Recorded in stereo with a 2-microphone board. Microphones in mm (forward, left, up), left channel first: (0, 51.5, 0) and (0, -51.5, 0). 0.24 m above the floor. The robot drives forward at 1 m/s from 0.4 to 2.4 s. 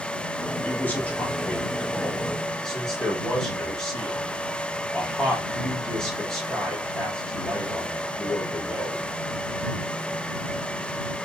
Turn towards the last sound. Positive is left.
turn(degrees=10)  # may be behind; listen again after turning